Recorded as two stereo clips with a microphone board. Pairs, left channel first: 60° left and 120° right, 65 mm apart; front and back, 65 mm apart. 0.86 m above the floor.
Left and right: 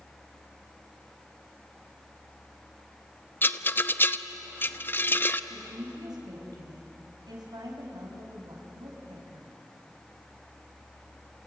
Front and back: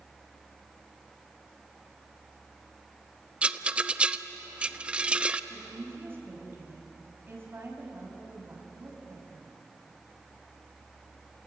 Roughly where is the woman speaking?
Behind right.